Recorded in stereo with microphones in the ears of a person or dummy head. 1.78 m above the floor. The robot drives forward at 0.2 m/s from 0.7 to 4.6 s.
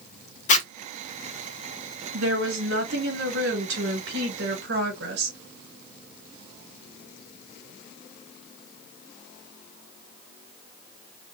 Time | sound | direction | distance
0.5 | a zipper | 45° left (ahead or behind) | 1.0 m
2.1 | a woman speaking | 80° right | 3 m